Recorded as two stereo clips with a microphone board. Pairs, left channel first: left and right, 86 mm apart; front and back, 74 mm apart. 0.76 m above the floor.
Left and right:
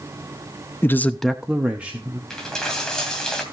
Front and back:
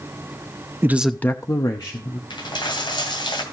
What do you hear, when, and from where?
0.8 s a man speaking: 140° left, 0.6 m; by 2.2 s 20° right, 1.6 m
2.3 s a dropped coin: 5° left, 2 m